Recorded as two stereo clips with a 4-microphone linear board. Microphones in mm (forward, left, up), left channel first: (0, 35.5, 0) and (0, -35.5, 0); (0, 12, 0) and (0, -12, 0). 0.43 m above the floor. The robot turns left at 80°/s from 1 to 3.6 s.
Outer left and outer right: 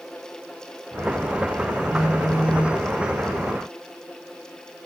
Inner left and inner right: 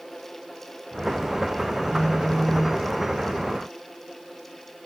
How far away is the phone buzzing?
About 3 m.